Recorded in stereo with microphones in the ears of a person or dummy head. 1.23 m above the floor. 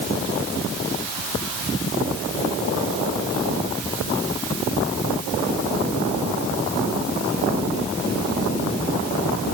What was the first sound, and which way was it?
Only background noise.